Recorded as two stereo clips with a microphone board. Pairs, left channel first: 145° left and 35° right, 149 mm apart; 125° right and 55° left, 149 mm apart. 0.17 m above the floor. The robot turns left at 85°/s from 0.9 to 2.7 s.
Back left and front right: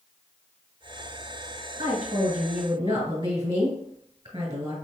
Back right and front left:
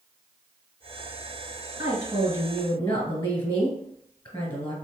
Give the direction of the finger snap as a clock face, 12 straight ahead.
No finger snap in this recording.